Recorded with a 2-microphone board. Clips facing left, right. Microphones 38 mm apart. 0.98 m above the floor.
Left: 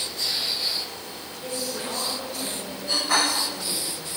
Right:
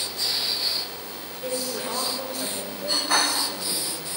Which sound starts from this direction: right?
A woman speaking, at 1.4 s.